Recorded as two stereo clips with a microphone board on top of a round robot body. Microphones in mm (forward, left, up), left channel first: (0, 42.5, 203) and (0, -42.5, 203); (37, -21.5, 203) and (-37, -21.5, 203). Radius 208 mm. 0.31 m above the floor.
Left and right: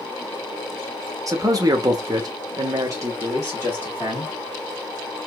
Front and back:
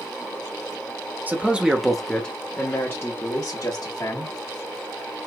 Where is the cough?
I don't hear a cough.